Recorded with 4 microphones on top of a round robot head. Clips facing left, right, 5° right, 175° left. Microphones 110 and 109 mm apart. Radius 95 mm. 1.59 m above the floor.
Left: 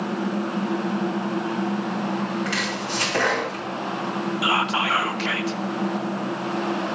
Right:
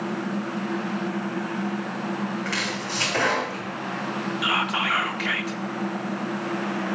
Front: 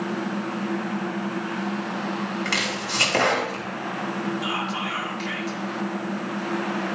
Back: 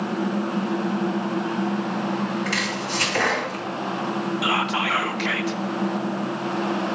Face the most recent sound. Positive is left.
turn(degrees=150)